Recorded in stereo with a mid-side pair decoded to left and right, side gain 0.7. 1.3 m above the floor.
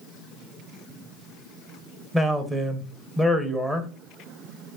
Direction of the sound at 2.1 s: 10° right.